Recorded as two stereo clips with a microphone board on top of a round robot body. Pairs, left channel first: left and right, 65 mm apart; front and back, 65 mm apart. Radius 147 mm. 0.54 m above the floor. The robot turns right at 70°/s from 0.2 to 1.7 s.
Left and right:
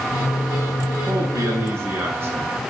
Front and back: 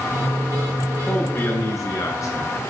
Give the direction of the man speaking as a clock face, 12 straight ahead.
3 o'clock.